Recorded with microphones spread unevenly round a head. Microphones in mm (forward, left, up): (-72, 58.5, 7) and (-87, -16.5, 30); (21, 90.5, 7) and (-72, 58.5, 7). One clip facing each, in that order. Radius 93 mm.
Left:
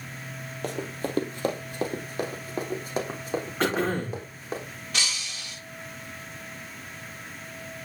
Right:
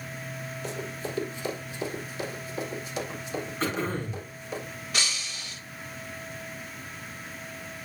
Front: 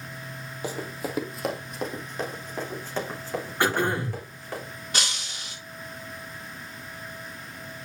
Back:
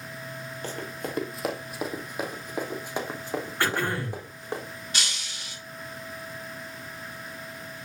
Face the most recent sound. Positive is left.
turn(degrees=-30)